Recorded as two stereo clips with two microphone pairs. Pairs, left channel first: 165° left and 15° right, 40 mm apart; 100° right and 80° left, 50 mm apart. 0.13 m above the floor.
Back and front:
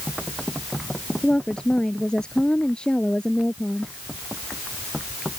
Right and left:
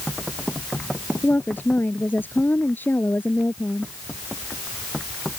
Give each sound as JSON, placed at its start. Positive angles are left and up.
{"t": 1.2, "sound": "a woman speaking", "azimuth_deg": -135}